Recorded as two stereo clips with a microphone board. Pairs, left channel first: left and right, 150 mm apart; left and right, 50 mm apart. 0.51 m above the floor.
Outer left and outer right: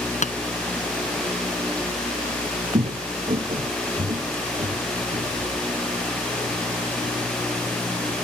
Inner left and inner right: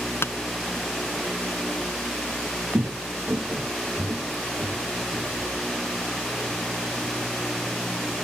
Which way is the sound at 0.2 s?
55° left (ahead or behind).